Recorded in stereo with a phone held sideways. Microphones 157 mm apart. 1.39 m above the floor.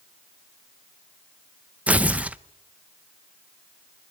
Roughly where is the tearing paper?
Centre.